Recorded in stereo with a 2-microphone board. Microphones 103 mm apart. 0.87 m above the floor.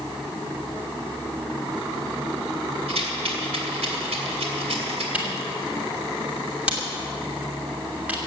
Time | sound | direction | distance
2.9 | a rattle | 85° right | 3 m
5.1 | a camera shutter | 15° right (ahead or behind) | 3 m